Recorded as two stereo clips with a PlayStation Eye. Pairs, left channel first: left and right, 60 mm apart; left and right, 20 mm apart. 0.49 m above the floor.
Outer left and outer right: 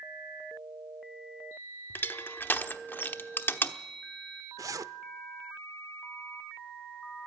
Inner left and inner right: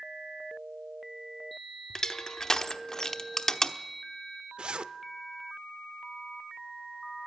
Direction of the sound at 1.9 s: 35° left (ahead or behind).